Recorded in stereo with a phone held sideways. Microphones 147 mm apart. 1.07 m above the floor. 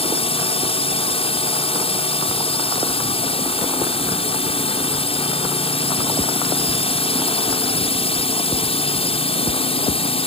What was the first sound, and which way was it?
A drone, 40° left (ahead or behind).